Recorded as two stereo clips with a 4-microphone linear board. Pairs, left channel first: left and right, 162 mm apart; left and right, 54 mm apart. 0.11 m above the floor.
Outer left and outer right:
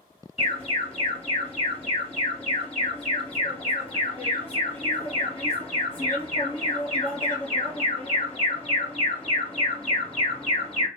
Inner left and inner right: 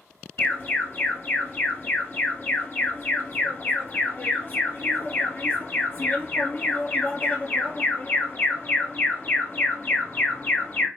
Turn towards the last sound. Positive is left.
turn(degrees=35)  # may be behind; listen again after turning